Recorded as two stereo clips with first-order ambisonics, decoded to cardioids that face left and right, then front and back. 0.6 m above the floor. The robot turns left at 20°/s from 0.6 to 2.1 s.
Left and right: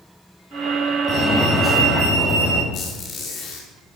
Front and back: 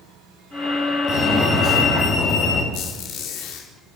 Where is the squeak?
25° left, 5.5 m.